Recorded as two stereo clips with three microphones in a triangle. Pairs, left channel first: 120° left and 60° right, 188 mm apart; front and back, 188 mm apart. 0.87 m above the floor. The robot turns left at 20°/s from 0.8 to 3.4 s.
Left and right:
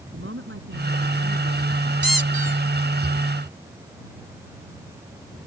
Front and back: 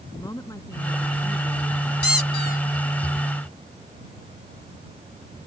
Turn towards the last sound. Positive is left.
turn(degrees=-60)